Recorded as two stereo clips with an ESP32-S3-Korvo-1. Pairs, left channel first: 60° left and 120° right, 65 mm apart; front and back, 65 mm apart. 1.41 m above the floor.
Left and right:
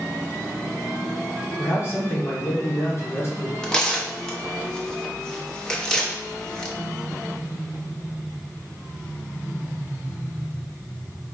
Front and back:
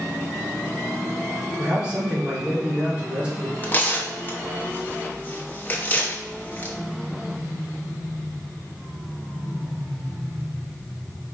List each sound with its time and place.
1.6 s a man speaking: 110° left, 1.6 m
3.6 s tearing paper: 5° right, 0.8 m